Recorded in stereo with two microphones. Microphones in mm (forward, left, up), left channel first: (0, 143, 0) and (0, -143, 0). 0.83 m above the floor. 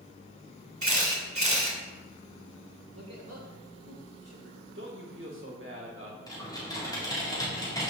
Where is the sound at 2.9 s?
60° right (ahead or behind), 3 m.